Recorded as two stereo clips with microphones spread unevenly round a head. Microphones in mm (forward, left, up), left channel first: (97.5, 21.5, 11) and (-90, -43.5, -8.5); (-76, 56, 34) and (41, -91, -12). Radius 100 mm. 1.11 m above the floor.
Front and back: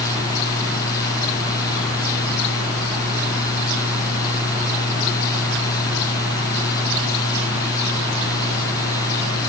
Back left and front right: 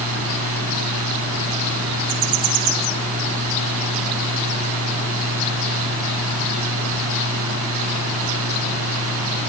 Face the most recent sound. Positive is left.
turn(degrees=-55)